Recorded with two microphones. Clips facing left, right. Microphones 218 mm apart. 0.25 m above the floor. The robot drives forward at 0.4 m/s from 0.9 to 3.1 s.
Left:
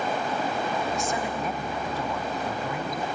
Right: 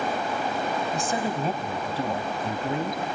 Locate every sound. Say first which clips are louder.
0.9 s a woman speaking: right 2 dB; 35° right (ahead or behind), 1.7 m; by 3.0 s 25° right (ahead or behind), 2 m